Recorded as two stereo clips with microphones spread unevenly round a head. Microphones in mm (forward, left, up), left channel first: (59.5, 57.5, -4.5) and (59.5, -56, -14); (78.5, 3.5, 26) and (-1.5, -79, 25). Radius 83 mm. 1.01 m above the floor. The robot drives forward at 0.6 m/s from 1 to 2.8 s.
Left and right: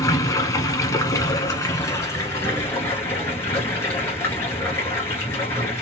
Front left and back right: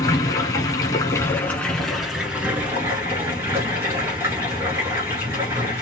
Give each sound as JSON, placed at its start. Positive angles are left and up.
{"t": 0.0, "sound": "running water", "azimuth_deg": 90, "distance_m": 1.0}